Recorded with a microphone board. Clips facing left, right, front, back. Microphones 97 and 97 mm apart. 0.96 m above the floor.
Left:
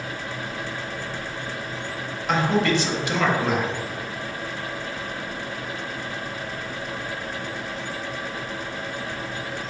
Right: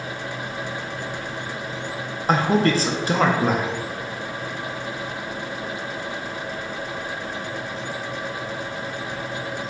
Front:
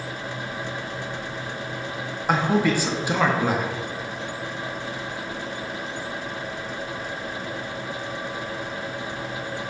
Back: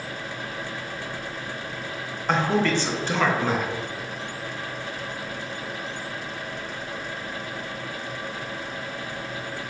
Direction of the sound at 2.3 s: 70° right.